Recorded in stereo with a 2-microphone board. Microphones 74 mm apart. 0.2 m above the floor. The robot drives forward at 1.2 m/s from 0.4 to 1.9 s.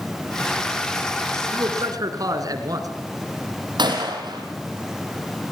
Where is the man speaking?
55° right (ahead or behind), 2.5 m.